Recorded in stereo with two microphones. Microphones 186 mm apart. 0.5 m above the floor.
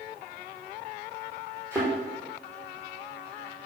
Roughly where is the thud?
Centre.